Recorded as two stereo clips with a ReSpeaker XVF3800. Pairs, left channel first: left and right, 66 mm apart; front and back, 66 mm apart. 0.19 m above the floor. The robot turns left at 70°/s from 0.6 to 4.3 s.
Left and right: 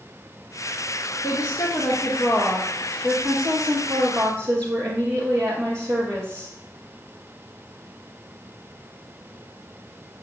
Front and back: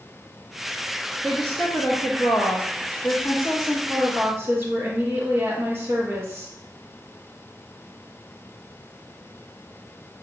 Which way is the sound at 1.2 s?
85° left.